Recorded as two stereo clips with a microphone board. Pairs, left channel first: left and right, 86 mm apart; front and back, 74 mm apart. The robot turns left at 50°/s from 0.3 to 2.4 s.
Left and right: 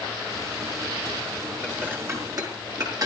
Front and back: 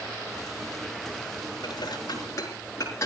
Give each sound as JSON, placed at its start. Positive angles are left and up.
{"t": 1.6, "sound": "dishes clattering", "azimuth_deg": -10, "distance_m": 4.5}